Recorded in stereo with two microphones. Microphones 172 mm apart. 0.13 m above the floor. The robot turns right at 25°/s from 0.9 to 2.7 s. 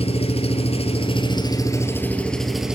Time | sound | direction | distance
0.0 | an engine running | 140° left | 1.3 m